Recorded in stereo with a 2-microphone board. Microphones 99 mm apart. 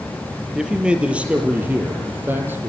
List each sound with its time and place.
0.6 s a man speaking: 5° right (ahead or behind), 4 m; by 2.7 s 20° right (ahead or behind), 6 m